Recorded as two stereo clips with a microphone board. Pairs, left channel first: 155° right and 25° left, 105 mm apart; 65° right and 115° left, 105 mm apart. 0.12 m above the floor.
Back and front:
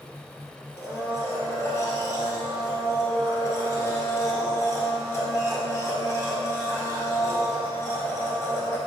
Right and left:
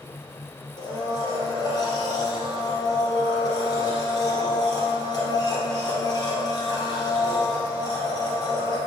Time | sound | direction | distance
0.8 | a blender | 100° right | 2 m